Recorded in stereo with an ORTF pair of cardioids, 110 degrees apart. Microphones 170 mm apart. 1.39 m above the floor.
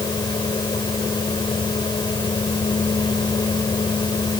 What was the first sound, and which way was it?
A fan, 25° left.